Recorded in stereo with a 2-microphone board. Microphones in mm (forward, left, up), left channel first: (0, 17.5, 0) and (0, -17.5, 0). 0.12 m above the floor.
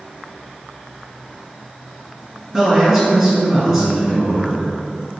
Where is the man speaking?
10° right (ahead or behind), 1.5 m.